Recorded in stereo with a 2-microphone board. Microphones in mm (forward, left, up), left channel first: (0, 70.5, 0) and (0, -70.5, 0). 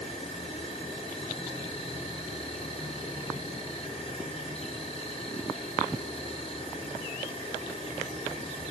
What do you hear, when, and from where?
0.0 s an insect: 40° left (ahead or behind), 5.5 m